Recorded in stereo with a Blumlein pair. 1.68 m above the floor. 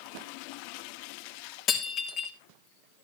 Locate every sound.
1.7 s breaking glass: 35° left, 2.5 m